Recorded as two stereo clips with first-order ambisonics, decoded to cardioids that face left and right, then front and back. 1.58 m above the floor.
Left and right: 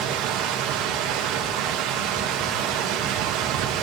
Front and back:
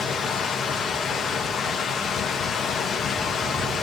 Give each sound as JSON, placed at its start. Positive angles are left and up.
{"t": 0.0, "sound": "running water", "azimuth_deg": -65, "distance_m": 1.9}